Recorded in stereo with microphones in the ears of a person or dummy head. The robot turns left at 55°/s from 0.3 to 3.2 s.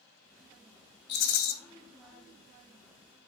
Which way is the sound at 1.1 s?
50° left (ahead or behind).